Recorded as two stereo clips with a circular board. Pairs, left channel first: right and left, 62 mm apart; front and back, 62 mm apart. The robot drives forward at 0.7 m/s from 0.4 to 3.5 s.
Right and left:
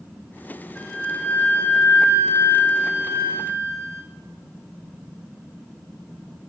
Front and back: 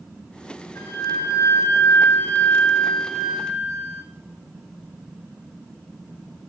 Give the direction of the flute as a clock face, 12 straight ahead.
1 o'clock.